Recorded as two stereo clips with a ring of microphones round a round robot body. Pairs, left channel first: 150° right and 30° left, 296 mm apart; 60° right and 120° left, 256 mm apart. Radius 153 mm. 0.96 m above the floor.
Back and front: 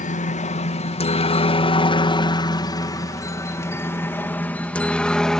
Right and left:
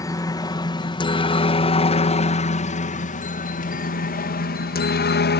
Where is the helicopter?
125° right; by 5.4 s 65° right.